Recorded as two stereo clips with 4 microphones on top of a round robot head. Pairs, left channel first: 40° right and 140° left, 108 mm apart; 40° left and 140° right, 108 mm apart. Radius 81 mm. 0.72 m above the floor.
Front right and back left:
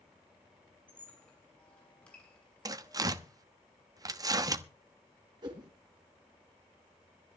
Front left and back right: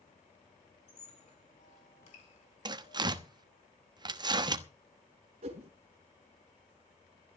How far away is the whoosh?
About 3.5 m.